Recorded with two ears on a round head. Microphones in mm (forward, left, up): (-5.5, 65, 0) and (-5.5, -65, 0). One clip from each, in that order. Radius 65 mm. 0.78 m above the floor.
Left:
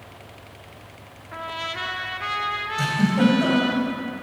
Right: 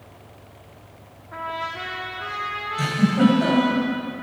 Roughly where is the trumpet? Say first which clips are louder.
Right 1 dB; left.